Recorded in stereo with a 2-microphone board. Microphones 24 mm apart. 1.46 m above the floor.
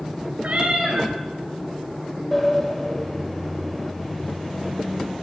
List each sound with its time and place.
0.4 s a cat meowing: 70° right (ahead or behind), 4 m
2.3 s a sliding door: 5° left (ahead or behind), 2.5 m